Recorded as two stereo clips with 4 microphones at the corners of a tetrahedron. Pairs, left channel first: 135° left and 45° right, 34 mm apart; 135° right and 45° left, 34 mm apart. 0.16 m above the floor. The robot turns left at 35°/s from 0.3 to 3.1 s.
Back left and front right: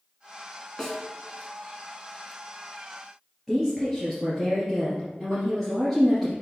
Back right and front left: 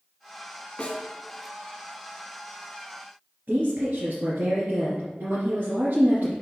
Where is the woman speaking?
40° left, 2.5 m.